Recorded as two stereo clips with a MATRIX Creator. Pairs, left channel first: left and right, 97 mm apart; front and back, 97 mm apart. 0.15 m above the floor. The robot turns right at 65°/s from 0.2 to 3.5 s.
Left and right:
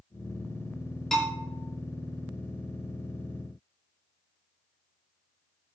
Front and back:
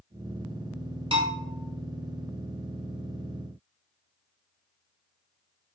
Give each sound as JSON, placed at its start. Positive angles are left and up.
{"t": 1.1, "sound": "a bell", "azimuth_deg": 175, "distance_m": 1.9}